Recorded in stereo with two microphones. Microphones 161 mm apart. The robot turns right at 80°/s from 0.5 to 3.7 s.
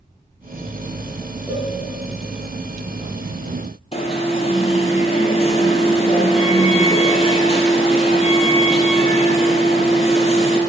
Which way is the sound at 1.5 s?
10° right (ahead or behind).